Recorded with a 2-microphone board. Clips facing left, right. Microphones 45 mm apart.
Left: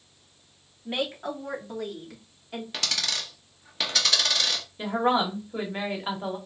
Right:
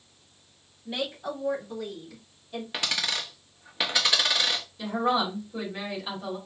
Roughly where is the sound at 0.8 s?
Left.